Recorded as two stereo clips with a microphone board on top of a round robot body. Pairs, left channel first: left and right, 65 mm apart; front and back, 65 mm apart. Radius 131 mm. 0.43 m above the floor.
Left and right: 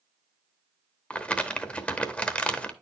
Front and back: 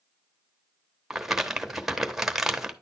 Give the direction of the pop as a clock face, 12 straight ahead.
No pop in this recording.